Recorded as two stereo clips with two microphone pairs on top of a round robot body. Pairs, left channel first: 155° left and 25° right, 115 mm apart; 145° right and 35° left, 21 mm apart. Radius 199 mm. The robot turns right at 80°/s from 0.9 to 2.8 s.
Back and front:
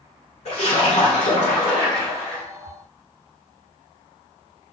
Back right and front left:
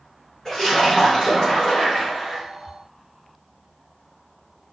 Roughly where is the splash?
Behind left.